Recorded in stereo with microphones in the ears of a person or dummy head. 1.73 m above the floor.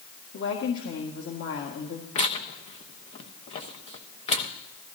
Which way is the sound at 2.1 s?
30° left (ahead or behind).